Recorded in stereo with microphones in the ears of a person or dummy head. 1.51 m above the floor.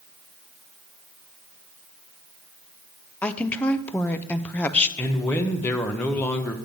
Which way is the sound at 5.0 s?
10° left (ahead or behind).